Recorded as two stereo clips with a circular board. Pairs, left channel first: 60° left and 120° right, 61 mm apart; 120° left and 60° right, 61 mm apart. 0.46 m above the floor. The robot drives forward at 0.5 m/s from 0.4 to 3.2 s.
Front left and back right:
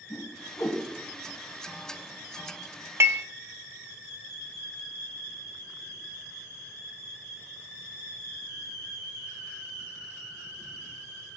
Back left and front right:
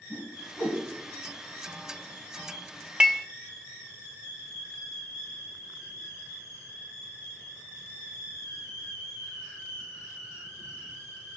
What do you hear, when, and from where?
0.1 s a whoosh: 60° left, 1.7 m; by 0.8 s 65° left, 1.5 m
3.0 s dishes clattering: 135° right, 0.6 m; by 3.2 s 140° right, 0.7 m